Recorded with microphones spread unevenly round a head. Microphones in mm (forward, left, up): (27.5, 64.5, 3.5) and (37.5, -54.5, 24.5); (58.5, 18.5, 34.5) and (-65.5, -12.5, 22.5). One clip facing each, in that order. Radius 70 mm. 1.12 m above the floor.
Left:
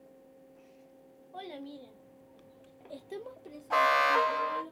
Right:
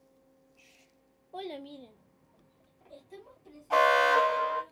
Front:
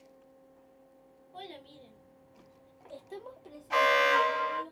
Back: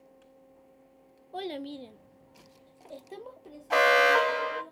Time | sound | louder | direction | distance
1.3 | a child speaking | right 3 dB, back 11 dB | 150° right | 0.7 m
3.7 | an alarm | right 3 dB, back 3 dB | 170° right | 0.8 m